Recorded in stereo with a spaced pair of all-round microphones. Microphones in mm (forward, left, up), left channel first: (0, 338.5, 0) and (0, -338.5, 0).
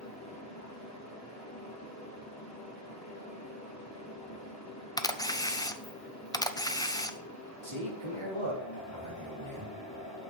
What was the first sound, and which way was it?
A fan, 25° left (ahead or behind).